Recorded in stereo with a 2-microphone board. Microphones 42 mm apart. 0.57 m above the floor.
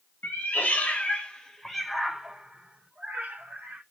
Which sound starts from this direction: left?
A cat meowing, at 0.2 s.